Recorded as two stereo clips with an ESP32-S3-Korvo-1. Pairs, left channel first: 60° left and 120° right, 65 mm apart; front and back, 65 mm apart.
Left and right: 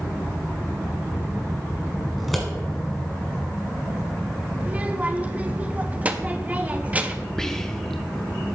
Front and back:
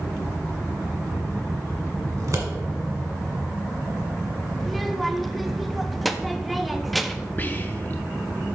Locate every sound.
2.2 s scissors: 150° left, 1.5 m
4.6 s a child speaking: 90° right, 0.5 m
7.4 s whispering: 15° right, 0.5 m